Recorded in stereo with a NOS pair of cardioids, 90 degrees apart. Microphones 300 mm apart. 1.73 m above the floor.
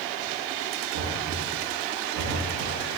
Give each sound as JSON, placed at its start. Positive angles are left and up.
{"t": 0.9, "sound": "knocking", "azimuth_deg": -65, "distance_m": 3.0}